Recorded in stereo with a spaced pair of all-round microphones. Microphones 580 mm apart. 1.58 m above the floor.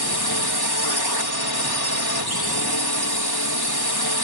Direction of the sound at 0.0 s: 35° left (ahead or behind).